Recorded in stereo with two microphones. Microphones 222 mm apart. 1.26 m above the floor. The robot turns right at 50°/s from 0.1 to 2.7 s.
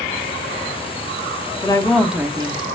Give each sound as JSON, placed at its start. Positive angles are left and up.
{"t": 1.6, "sound": "a woman speaking", "azimuth_deg": 160, "distance_m": 0.6}